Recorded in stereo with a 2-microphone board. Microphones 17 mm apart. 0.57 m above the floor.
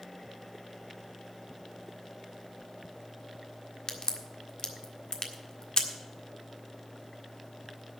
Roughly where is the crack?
Left.